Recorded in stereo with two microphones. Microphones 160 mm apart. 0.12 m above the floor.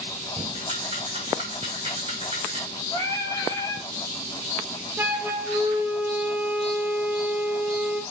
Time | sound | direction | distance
0.5 | a rattle | 35° right (ahead or behind) | 6.5 m
2.9 | singing | 20° left (ahead or behind) | 1.5 m
5.0 | a flute | 10° right (ahead or behind) | 1.4 m